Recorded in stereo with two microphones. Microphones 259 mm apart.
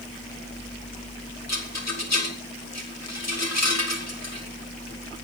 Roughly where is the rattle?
Left.